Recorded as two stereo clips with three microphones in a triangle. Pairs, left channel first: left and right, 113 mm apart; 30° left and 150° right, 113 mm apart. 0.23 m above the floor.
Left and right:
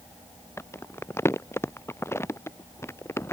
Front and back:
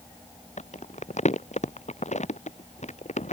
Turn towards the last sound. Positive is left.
turn(degrees=20)